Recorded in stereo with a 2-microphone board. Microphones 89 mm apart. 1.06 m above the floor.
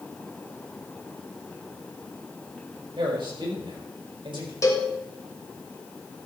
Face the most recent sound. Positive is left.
turn(degrees=35)  # may be behind; listen again after turning